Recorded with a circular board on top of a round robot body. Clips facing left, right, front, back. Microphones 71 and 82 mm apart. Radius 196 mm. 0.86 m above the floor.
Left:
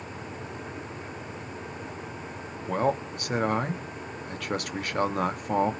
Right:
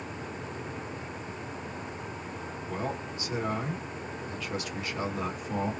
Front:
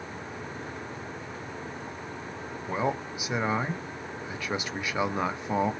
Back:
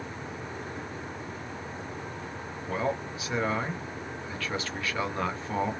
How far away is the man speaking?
About 0.9 m.